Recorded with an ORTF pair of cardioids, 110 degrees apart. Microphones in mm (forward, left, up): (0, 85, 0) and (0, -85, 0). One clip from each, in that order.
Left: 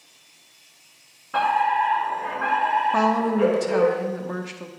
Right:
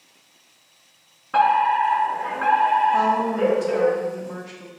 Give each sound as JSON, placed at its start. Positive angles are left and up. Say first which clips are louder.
{"t": 1.3, "sound": "a fire alarm", "louder": "right 3 dB", "azimuth_deg": -30, "distance_m": 4.0}
{"t": 2.9, "sound": "a woman speaking", "louder": "right 1 dB", "azimuth_deg": 40, "distance_m": 1.5}